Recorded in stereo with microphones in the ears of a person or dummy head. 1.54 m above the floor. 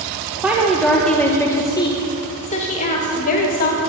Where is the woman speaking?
10° right (ahead or behind), 1.3 m; by 3.8 s 45° left (ahead or behind), 2 m.